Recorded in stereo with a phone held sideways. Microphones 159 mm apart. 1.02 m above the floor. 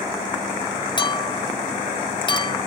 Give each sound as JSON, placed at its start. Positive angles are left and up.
{"t": 1.0, "sound": "a clink", "side_deg": 35}